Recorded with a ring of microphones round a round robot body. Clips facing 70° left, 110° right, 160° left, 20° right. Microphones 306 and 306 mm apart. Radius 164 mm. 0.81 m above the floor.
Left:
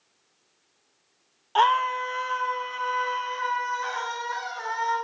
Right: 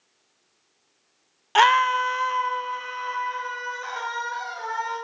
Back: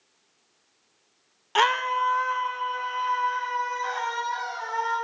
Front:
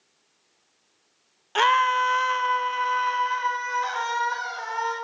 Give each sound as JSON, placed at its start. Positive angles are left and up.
{"t": 1.6, "sound": "a scream", "azimuth_deg": -125, "distance_m": 0.6}